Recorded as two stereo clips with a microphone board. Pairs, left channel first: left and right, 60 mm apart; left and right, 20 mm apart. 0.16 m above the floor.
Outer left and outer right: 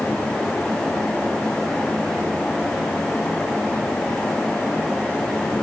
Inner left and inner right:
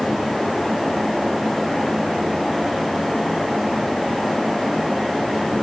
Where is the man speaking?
I don't hear a man speaking.